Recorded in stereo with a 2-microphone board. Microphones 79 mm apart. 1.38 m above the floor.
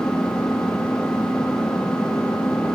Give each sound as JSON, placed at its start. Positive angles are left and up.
{"t": 0.0, "sound": "an engine running", "side_deg": -5, "distance_m": 9.5}